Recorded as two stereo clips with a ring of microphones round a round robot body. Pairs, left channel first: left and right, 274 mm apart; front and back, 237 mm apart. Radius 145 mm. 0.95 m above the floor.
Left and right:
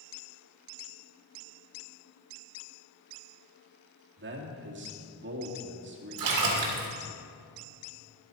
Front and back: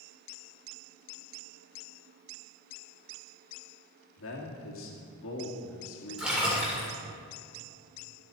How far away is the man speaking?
About 2.0 m.